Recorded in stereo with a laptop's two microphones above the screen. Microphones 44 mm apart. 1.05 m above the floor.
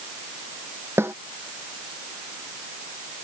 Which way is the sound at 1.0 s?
75° right (ahead or behind).